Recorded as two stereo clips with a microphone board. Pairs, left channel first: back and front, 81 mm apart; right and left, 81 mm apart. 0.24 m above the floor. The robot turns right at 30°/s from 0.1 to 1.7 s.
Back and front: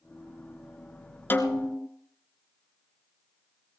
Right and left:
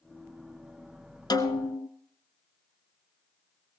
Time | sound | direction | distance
1.3 | a snare drum | 115° right | 1.0 m